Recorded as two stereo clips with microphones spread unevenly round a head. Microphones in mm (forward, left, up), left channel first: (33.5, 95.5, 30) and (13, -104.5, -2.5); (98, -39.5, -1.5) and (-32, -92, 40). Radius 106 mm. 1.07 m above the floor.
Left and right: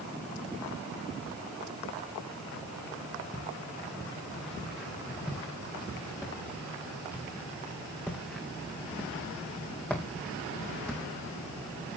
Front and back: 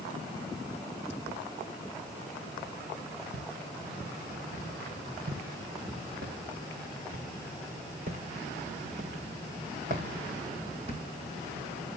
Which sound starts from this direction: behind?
Footsteps, at 3.3 s.